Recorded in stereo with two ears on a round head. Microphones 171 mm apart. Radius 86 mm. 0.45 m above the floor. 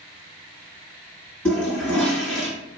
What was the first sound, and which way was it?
A toilet flushing, 5° left (ahead or behind).